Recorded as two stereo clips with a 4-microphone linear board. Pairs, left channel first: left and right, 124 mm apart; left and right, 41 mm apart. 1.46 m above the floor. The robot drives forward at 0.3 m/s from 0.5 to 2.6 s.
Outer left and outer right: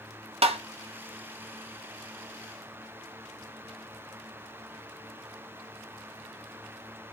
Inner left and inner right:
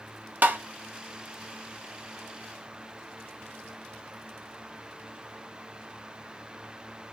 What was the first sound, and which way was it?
Tapping, 50° right (ahead or behind).